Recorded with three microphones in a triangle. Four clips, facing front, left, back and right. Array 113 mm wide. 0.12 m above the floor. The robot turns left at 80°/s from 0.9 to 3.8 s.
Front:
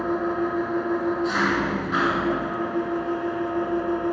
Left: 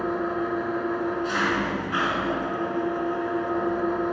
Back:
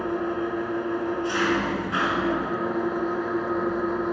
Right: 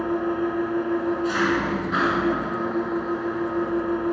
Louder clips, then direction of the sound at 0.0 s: Right 2 dB, front 2 dB; 35° left.